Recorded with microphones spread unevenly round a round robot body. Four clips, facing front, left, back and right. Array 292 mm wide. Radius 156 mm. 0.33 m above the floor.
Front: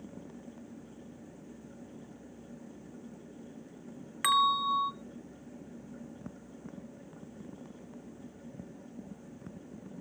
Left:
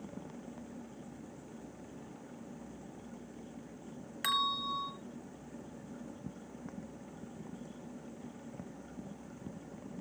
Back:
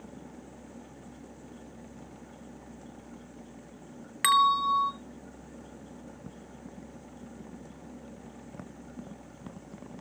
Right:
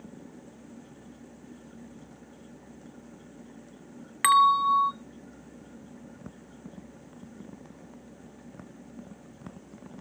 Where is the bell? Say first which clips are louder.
Right 15 dB, back 4 dB; 105° right, 1.0 m.